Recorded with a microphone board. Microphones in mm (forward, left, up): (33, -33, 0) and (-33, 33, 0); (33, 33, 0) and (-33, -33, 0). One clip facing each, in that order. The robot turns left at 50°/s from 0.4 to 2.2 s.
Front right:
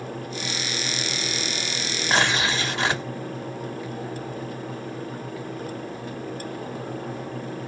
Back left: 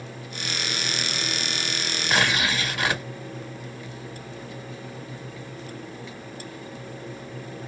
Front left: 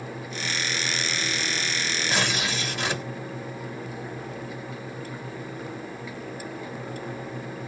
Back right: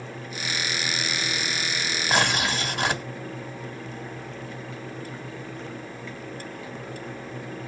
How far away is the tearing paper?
About 1.6 m.